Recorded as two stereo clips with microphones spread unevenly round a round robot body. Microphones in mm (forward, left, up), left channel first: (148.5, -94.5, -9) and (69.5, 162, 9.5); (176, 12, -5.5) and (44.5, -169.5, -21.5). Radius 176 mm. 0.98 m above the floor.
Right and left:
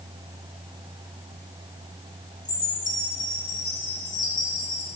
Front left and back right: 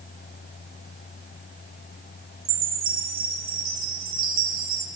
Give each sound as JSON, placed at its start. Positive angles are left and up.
{"t": 2.5, "sound": "a chime", "azimuth_deg": -145, "distance_m": 0.9}